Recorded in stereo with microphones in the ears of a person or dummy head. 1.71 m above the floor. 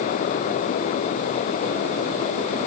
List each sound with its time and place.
Only background noise.